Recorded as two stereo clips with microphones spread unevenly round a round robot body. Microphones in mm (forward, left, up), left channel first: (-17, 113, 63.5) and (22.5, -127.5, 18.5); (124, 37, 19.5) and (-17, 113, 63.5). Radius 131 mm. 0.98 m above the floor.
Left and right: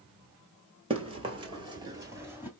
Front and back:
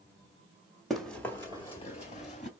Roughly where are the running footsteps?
Behind right.